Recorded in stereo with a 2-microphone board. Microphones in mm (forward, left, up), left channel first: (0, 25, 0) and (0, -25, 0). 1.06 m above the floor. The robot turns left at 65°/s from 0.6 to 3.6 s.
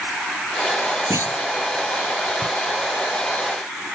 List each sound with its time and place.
1.1 s a clunk: 75° right (ahead or behind); by 1.4 s 85° right